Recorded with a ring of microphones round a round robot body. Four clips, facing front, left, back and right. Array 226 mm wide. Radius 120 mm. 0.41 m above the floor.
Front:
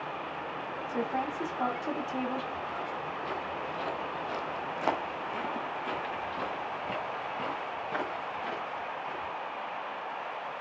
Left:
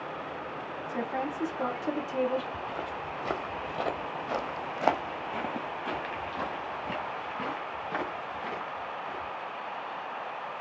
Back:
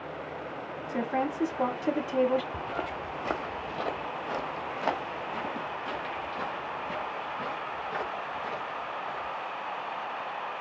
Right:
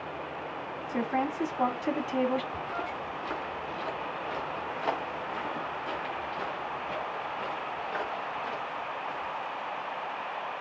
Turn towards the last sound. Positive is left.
turn(degrees=60)